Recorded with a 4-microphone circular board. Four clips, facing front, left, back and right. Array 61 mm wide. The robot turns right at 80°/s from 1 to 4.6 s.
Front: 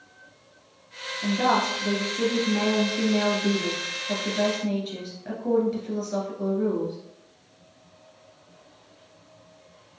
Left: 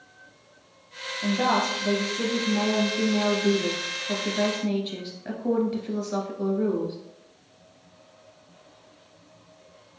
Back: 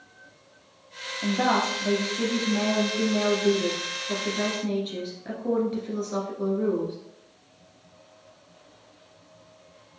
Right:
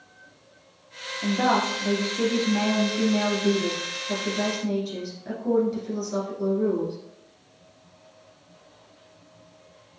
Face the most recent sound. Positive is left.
turn(degrees=110)